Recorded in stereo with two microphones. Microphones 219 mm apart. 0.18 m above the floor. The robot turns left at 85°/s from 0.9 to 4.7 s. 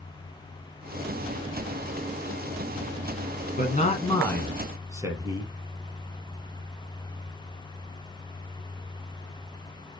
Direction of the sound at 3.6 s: 75° left.